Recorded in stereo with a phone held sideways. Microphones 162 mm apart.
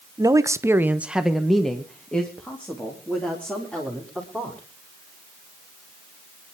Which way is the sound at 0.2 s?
20° right (ahead or behind).